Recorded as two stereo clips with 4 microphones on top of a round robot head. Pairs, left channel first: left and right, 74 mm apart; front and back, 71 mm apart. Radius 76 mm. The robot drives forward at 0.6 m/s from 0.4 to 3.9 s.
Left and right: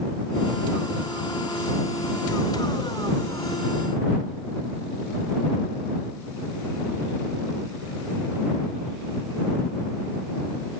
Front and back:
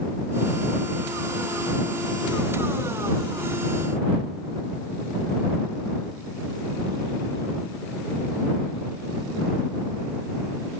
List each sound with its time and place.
Only background noise.